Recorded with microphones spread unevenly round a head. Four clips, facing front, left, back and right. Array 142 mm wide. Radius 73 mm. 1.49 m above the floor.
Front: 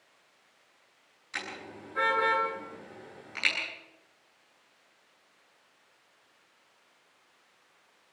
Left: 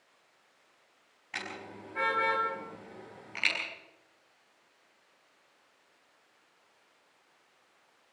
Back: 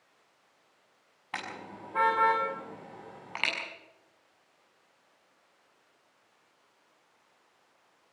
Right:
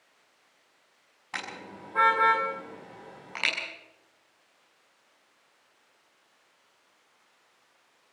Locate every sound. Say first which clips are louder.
1.3 s a car horn: right 2 dB, back 1 dB; 160° right, 7 m